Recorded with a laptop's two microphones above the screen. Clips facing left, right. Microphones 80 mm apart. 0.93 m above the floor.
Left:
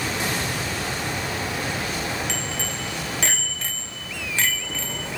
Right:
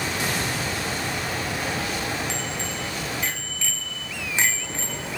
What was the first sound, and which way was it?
A bicycle bell, 80° left.